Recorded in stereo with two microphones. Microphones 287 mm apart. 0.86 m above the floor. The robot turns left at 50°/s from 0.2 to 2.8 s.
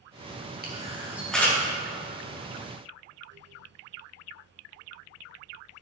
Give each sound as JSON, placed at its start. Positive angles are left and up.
{"t": 0.6, "sound": "a camera shutter", "side_deg": -30, "distance_m": 1.5}